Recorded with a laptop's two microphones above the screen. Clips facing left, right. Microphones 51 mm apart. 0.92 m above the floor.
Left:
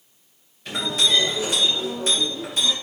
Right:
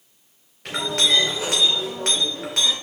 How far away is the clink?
About 2.5 m.